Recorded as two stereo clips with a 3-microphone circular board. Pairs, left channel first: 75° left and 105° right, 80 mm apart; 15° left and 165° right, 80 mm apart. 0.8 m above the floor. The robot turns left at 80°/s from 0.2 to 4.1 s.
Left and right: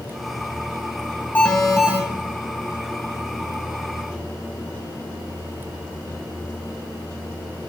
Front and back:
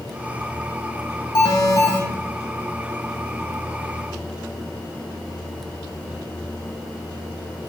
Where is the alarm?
15° left, 2.5 m; by 2.0 s 40° right, 2.5 m.